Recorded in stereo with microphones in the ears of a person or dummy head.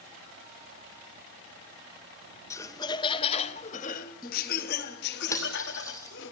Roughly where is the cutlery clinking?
Centre.